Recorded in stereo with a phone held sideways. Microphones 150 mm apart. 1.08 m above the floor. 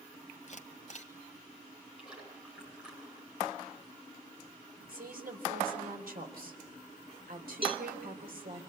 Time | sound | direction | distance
0.5 | a camera shutter | 55° left (ahead or behind) | 1.8 m
2.0 | a splash | 5° right (ahead or behind) | 9 m
4.9 | a woman speaking | 75° right (ahead or behind) | 3.5 m
7.6 | a cowbell | 35° right (ahead or behind) | 0.9 m